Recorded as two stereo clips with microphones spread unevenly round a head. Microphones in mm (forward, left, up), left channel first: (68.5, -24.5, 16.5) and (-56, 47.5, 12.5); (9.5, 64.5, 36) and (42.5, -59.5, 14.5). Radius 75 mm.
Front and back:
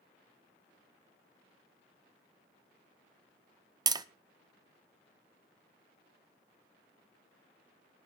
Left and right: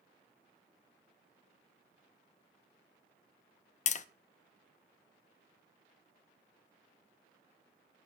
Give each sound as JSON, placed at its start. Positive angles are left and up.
{"t": 3.9, "sound": "tapping", "azimuth_deg": 95, "distance_m": 0.6}